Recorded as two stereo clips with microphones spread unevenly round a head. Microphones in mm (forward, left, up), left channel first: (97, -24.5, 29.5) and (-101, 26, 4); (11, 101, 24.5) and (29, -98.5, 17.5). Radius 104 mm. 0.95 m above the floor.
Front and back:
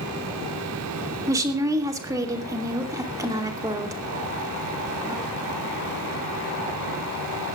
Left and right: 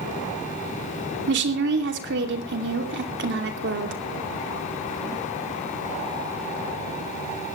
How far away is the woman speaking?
About 3 m.